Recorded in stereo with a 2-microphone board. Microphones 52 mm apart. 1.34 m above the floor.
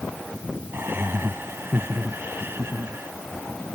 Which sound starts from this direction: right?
Laughter, at 0.7 s.